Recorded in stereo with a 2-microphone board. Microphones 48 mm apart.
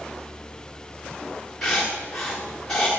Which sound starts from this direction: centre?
Writing, at 1.6 s.